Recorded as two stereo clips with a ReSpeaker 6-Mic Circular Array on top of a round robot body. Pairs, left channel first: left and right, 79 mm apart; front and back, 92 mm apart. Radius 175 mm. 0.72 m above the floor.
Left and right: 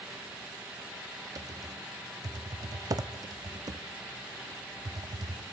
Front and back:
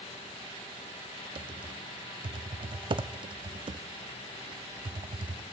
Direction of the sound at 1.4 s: 140° right.